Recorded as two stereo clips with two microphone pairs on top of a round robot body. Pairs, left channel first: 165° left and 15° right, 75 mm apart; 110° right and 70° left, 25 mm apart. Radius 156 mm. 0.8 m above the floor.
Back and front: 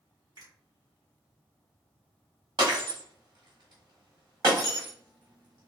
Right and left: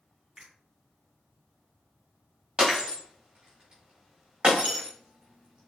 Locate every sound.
0.4 s a finger snap: 5° left, 2.5 m
2.6 s breaking glass: 15° left, 1.6 m